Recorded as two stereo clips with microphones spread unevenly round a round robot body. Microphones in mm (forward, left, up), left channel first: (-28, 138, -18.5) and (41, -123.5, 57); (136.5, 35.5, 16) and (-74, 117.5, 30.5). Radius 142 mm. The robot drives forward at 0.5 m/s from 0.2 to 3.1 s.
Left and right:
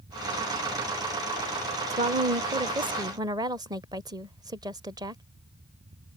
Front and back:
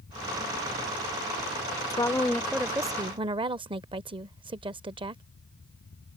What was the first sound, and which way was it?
A woman speaking, 10° right.